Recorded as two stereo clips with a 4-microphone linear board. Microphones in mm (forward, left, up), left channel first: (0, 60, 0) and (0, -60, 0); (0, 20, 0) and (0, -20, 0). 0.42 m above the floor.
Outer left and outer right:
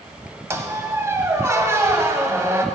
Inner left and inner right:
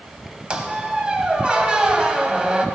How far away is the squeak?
About 1.0 m.